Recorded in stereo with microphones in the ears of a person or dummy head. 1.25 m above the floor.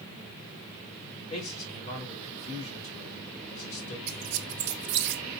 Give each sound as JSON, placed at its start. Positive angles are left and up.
{"t": 1.3, "sound": "a man speaking", "side_deg": 35, "distance_m": 4.0}
{"t": 4.1, "sound": "a squeak", "side_deg": -50, "distance_m": 0.7}